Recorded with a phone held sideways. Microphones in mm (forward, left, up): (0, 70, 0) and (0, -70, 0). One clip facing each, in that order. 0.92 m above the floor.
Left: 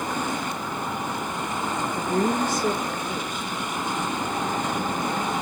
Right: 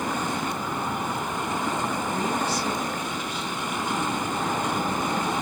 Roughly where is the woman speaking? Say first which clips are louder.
Left 3 dB; left.